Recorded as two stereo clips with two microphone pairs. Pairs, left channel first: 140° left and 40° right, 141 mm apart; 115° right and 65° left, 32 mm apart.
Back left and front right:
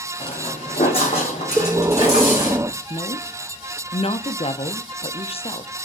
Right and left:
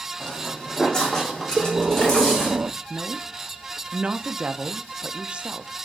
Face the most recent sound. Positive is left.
turn(degrees=110)